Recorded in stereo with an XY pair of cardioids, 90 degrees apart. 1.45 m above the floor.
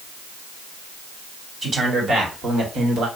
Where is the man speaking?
50° right, 1.9 m; by 3.1 s 80° right, 1.4 m.